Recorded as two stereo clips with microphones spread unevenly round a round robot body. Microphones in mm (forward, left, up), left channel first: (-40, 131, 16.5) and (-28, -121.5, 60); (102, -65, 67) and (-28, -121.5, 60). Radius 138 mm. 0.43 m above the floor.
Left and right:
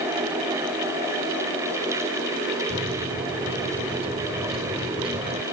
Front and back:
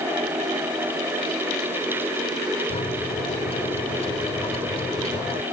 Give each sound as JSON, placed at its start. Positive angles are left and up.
{"t": 2.7, "sound": "a microwave", "azimuth_deg": -15}